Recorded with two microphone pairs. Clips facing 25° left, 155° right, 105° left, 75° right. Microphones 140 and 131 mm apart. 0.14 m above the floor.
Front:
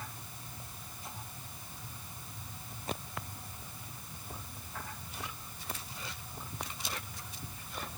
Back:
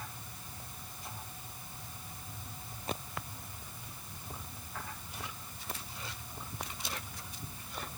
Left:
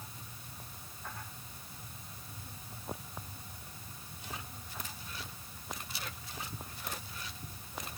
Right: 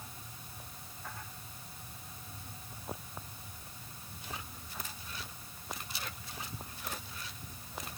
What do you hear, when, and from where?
Only background noise.